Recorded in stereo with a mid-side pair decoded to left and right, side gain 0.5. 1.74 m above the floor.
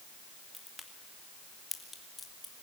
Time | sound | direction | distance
0.5 | a crack | 20° left | 3 m